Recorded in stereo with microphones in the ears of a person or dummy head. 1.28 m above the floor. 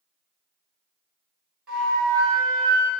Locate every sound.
1.7 s a flute: centre (ahead or behind), 1.8 m